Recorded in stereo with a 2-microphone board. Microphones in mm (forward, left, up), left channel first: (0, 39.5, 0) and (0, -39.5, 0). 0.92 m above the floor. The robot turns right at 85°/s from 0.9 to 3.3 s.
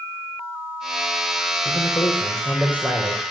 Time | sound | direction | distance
1.6 | a man speaking | 105° left | 3.5 m